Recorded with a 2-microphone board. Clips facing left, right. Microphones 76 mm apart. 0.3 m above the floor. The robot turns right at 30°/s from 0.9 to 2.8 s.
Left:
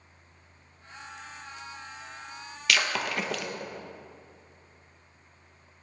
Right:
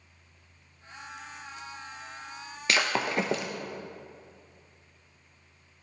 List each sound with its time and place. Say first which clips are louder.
2.7 s breaking glass: right 1 dB; 30° right (ahead or behind), 0.8 m; by 3.5 s 25° right (ahead or behind), 0.8 m